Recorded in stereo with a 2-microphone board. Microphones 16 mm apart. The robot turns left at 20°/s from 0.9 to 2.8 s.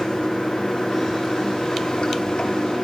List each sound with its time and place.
0.0 s running water: 125° left, 9.5 m; by 2.8 s 85° left, 9.5 m